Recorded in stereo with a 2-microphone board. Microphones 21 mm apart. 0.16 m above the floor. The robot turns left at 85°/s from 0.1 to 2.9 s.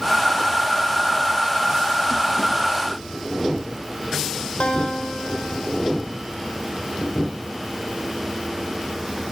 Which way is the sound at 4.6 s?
75° left (ahead or behind).